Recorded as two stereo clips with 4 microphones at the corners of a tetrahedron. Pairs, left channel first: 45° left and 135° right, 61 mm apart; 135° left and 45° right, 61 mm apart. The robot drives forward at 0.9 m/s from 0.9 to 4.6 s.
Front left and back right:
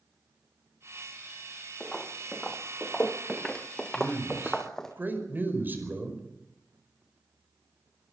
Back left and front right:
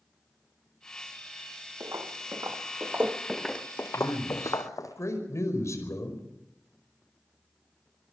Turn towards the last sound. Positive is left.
turn(degrees=170)